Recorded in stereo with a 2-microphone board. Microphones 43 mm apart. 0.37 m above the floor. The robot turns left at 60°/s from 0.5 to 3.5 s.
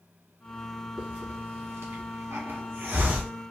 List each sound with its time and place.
1.0 s a hiss: 20° right (ahead or behind), 1.0 m